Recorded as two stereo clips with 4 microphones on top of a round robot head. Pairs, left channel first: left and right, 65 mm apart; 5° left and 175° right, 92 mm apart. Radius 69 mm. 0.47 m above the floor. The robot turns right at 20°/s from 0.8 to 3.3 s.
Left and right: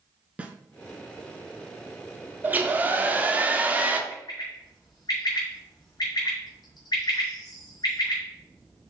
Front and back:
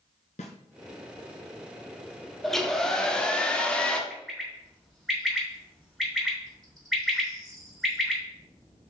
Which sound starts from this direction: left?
A bird, at 4.1 s.